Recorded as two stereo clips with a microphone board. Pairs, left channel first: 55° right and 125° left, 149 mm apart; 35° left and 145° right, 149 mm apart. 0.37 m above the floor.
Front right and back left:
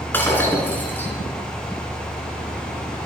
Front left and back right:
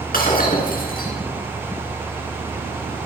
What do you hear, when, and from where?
0.1 s breaking glass: 20° left, 3.5 m